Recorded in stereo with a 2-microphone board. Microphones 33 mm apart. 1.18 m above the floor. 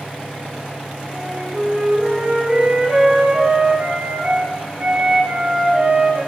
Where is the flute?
55° right (ahead or behind), 1.7 m.